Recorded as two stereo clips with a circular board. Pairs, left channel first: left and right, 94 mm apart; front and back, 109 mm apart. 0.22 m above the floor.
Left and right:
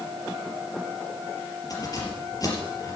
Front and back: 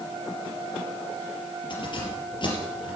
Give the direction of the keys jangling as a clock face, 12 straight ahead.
11 o'clock.